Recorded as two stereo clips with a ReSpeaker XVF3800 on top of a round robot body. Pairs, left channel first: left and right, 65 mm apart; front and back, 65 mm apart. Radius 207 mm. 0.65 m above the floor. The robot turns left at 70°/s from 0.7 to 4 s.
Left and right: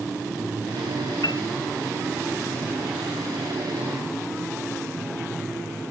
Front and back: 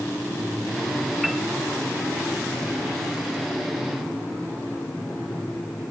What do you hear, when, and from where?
1.2 s a piano: 95° left; by 1.4 s 80° left